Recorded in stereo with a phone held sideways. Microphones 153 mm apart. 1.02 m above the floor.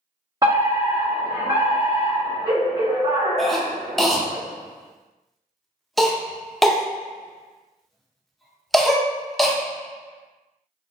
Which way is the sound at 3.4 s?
Centre (ahead or behind).